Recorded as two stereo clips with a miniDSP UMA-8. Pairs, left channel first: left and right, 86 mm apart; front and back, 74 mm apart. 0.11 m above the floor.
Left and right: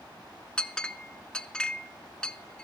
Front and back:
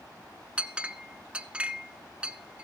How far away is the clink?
About 0.6 m.